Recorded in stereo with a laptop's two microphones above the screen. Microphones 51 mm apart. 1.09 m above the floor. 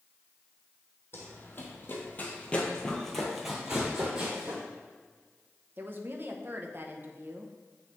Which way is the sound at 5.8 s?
45° right (ahead or behind).